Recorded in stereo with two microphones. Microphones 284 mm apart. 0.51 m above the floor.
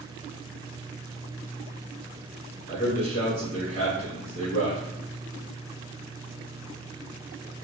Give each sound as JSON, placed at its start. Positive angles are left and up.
{"t": 2.7, "sound": "a man speaking", "side_deg": 55, "distance_m": 1.1}